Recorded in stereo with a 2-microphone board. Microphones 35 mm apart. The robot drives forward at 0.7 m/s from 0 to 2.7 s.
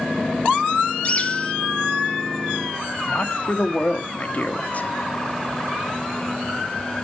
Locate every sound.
1.0 s a bird: 30° left (ahead or behind), 1.1 m; by 1.5 s 25° left (ahead or behind), 1.3 m
3.0 s a man speaking: 40° left (ahead or behind), 1.2 m